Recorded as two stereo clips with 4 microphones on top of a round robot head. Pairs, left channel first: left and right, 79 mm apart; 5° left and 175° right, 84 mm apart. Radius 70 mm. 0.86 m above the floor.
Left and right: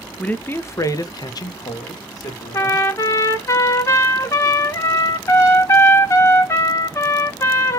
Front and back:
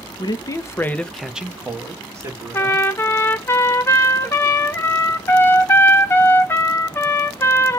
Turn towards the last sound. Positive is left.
turn(degrees=50)